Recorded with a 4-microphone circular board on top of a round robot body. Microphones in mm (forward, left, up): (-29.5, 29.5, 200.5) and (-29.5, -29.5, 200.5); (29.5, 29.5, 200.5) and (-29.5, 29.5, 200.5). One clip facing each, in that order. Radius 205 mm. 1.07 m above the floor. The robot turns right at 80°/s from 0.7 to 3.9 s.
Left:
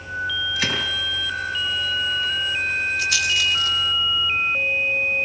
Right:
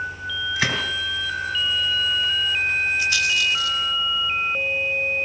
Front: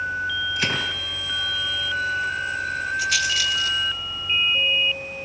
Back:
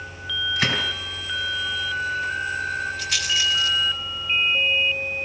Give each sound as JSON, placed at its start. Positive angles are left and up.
{"t": 0.6, "sound": "a gunshot", "azimuth_deg": -130, "distance_m": 5.0}
{"t": 3.0, "sound": "a rattle", "azimuth_deg": 80, "distance_m": 4.0}